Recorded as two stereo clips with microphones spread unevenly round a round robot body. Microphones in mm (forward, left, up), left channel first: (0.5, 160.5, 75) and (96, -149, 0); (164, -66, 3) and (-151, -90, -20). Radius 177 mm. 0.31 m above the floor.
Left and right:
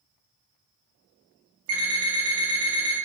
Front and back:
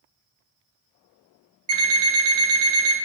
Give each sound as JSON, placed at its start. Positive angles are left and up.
{"t": 1.7, "sound": "an alarm clock", "azimuth_deg": -140, "distance_m": 1.4}